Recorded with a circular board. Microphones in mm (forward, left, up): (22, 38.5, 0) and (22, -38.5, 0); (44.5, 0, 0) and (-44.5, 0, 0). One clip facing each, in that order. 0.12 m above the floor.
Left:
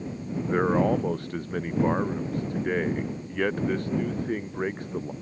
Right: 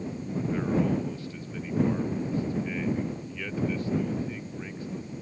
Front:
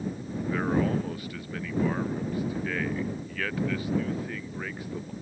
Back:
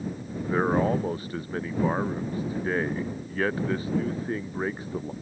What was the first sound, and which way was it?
A man speaking, 125° left.